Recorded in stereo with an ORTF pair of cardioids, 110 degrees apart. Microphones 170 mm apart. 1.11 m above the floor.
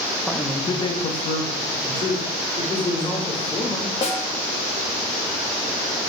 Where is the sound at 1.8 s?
25° left, 3 m.